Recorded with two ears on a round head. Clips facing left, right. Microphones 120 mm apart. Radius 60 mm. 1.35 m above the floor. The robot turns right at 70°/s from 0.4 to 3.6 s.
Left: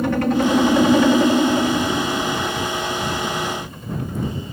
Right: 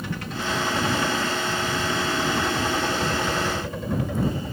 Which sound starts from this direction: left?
A helicopter, at 0.0 s.